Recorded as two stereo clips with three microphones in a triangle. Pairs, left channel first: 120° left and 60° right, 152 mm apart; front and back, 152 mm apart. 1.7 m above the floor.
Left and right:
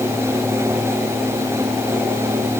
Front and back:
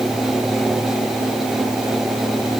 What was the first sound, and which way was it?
Only background noise.